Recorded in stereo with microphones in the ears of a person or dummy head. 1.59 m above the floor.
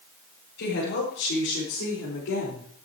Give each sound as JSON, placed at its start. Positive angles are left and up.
{"t": 0.6, "sound": "a woman speaking", "side_deg": 70, "distance_m": 6.0}